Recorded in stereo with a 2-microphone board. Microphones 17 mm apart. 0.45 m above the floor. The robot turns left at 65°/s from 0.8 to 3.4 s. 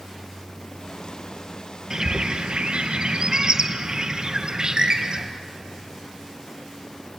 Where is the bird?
30° right, 2 m; by 5.3 s 125° right, 2 m.